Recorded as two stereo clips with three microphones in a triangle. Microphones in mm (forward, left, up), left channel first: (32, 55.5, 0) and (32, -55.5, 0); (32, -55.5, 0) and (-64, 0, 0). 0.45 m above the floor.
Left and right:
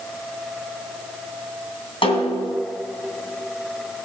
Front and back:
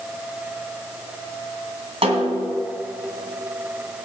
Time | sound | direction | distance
2.0 | a snare drum | 125° left | 2.5 m